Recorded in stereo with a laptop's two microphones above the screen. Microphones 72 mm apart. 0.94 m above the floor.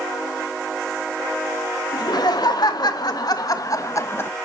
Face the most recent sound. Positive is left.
turn(degrees=30)  # may be behind; listen again after turning